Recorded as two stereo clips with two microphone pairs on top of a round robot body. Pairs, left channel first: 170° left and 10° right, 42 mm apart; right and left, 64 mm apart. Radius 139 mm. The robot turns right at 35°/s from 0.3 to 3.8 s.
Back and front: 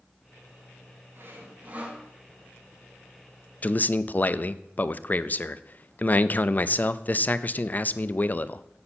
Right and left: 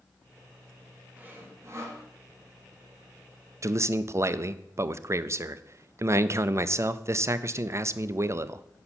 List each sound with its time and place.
1.2 s sawing: 25° left, 2 m; by 2.0 s 55° left, 2 m
3.6 s a man speaking: 130° left, 0.6 m; by 8.7 s 135° left, 0.6 m